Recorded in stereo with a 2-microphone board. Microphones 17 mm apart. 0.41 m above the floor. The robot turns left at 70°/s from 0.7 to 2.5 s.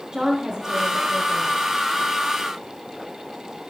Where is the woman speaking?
30° right, 4 m; by 1.5 s 85° right, 4 m.